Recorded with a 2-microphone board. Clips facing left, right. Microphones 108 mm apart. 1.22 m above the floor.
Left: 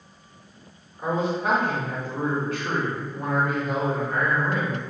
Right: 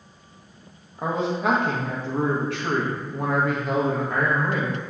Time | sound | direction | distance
1.0 | a man speaking | 80° right | 0.9 m